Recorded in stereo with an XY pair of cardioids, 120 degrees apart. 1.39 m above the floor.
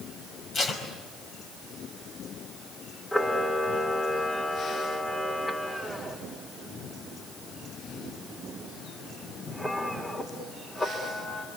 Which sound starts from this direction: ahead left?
Tape being pulled, at 0.5 s.